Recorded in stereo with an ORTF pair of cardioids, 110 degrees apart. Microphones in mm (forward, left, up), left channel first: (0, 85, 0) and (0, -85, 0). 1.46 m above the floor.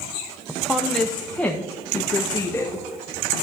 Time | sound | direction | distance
0.5 | a woman speaking | 5° right | 0.6 m